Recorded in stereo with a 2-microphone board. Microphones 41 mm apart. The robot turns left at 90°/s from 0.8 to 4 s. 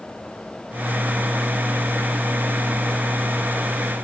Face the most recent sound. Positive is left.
No sound to turn to.